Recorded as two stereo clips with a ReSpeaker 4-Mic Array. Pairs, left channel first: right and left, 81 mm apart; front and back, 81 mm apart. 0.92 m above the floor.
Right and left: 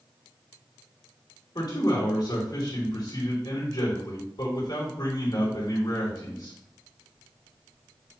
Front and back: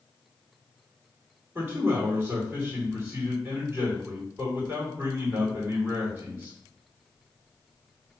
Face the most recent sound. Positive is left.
turn(degrees=-115)